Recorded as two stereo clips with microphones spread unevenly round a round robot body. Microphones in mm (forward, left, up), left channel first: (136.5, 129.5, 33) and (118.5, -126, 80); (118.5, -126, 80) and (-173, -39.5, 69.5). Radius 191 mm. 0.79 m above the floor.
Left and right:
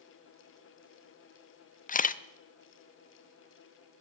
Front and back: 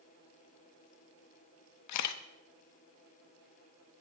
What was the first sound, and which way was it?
A camera shutter, 25° left.